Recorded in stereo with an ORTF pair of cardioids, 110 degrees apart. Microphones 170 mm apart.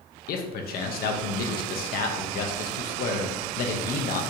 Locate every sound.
0.3 s a man speaking: 65° left, 0.7 m